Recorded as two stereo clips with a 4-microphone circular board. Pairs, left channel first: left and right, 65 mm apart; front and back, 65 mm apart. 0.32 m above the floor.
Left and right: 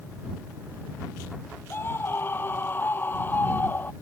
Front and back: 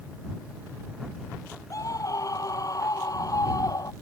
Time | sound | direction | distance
1.7 | a scream | 35° left | ?